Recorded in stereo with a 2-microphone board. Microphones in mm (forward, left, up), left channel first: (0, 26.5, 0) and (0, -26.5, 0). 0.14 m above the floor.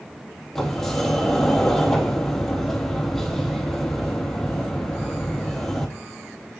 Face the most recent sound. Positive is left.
turn(degrees=10)  # may be behind; listen again after turning